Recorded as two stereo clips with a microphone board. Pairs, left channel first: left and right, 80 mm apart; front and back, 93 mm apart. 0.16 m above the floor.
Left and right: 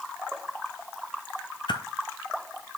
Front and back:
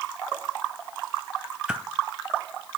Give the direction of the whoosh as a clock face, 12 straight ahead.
9 o'clock.